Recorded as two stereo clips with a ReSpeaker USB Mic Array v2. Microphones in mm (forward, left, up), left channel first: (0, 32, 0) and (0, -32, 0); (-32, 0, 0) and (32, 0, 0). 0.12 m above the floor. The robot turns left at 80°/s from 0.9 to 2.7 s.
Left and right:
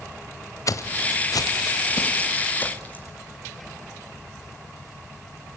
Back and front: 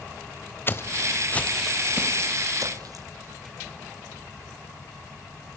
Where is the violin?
No violin in this recording.